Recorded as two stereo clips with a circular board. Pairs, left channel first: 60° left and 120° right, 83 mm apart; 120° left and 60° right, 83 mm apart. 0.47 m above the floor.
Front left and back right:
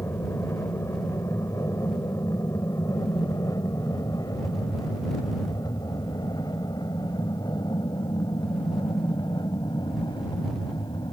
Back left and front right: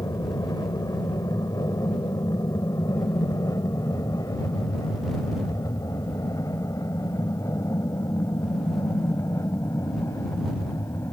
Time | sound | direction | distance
0.0 | an aircraft | 105° left | ?